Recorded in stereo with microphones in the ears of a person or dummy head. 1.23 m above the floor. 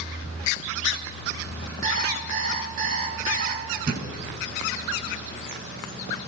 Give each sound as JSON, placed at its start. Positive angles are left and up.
{"t": 1.8, "sound": "an alarm clock", "side_deg": -45, "distance_m": 6.0}
{"t": 3.9, "sound": "a thud", "side_deg": -50, "distance_m": 7.0}